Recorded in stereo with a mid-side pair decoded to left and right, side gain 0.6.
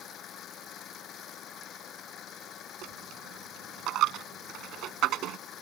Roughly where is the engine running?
Ahead left.